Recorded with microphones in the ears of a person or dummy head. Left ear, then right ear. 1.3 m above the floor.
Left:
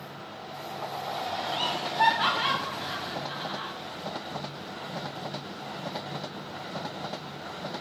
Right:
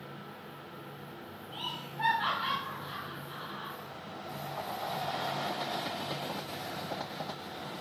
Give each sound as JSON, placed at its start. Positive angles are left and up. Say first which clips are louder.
{"t": 1.5, "sound": "laughter", "louder": "left 9 dB", "side_deg": 60, "distance_m": 0.7}